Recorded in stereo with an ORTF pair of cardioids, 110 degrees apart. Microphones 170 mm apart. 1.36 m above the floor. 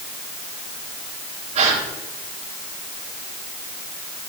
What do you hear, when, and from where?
1.6 s a gasp: 40° right, 3.5 m